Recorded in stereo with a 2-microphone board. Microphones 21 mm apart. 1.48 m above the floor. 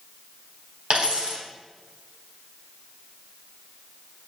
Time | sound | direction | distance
0.9 | a dropped coin | 60° right (ahead or behind) | 3.5 m